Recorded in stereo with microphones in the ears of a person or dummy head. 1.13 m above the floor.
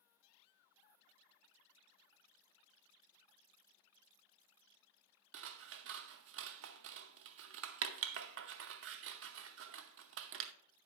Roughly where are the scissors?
Right.